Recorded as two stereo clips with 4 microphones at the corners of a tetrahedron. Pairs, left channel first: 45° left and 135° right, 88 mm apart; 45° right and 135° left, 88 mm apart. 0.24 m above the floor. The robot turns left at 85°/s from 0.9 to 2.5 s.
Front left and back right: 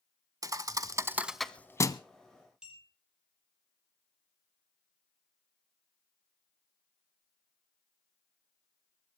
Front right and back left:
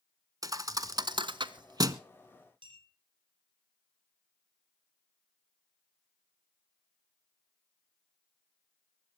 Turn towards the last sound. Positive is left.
turn(degrees=145)